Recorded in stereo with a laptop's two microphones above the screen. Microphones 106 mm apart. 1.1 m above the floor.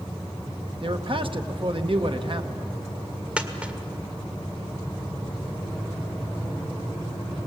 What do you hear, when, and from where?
0.8 s a man speaking: 55° right (ahead or behind), 1.0 m
3.4 s a dropped coin: 10° right (ahead or behind), 1.6 m